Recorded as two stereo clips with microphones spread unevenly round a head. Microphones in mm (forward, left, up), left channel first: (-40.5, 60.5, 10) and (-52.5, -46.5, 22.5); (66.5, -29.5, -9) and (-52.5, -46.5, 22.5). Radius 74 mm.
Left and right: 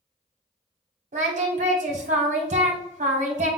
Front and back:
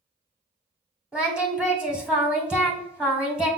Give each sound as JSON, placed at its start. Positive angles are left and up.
{"t": 1.1, "sound": "singing", "azimuth_deg": -85, "distance_m": 1.1}